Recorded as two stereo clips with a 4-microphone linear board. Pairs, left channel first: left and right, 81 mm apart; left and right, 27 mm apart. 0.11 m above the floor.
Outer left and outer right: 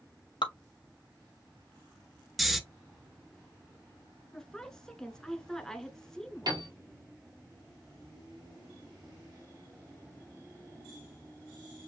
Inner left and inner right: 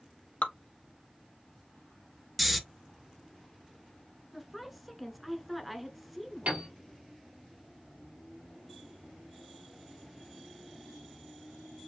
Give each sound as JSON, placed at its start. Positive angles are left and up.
{"t": 0.4, "sound": "dripping", "side_deg": 75, "distance_m": 0.7}
{"t": 2.4, "sound": "snoring", "side_deg": 0, "distance_m": 0.8}
{"t": 4.3, "sound": "a woman speaking", "side_deg": 5, "distance_m": 1.2}
{"t": 6.5, "sound": "a piano", "side_deg": -60, "distance_m": 2.5}